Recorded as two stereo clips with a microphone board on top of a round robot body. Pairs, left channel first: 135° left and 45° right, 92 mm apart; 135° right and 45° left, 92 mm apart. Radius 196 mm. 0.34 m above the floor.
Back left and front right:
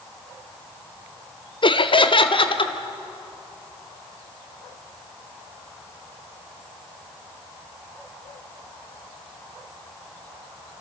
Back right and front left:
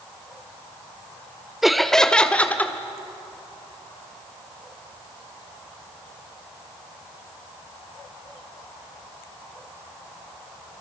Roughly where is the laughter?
Behind left.